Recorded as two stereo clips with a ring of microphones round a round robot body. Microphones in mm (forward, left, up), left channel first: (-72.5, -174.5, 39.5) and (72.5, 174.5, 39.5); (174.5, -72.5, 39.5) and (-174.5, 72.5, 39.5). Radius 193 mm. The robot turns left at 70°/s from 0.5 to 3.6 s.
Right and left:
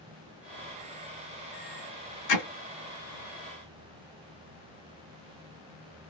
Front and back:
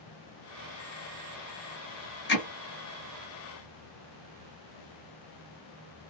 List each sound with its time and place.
2.3 s hammering: 80° right, 1.7 m; by 2.5 s 90° right, 1.7 m